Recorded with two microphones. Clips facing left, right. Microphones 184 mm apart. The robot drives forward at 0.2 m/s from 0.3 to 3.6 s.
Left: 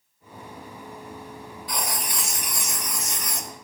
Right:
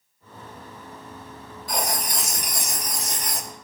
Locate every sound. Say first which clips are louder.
1.7 s writing: right 4 dB; 45° right (ahead or behind), 1.0 m; by 3.5 s 35° right (ahead or behind), 1.2 m